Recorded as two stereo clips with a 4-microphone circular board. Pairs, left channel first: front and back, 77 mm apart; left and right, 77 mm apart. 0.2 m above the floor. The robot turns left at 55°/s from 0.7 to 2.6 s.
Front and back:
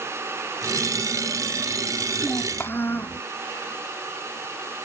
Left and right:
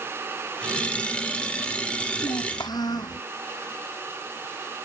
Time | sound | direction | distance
2.2 | a child speaking | 85° left | ?